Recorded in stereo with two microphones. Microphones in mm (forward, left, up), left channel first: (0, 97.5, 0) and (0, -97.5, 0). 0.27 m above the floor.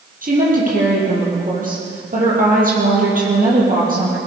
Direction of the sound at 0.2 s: 45° right (ahead or behind).